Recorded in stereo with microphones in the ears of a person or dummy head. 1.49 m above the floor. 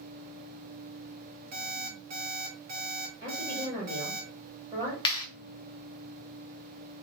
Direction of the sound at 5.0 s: 20° left (ahead or behind).